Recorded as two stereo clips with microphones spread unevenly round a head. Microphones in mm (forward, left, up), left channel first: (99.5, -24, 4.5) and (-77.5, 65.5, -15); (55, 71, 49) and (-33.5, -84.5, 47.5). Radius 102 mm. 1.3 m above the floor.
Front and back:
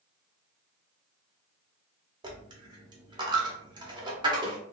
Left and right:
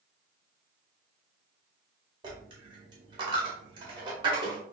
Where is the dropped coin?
155° right, 0.8 m.